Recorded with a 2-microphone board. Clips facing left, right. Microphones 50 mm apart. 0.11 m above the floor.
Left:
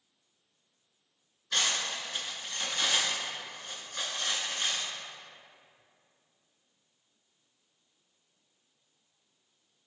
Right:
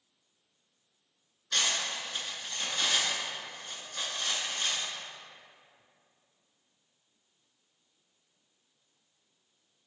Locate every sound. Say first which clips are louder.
1.5 s cutlery clinking: even; 15° left (ahead or behind), 0.6 m